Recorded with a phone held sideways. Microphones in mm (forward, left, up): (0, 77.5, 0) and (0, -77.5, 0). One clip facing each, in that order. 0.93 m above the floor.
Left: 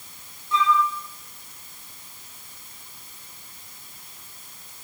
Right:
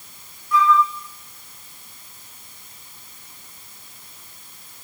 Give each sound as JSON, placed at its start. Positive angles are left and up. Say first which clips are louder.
{"t": 0.5, "sound": "a flute", "louder": "right 4 dB", "side_deg": 25, "distance_m": 8.0}